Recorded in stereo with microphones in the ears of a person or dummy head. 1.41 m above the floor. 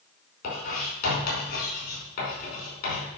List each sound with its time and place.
0.4 s writing: 50° left (ahead or behind), 5 m